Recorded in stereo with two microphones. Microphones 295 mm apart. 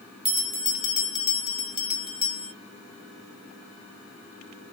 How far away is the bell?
About 1.1 m.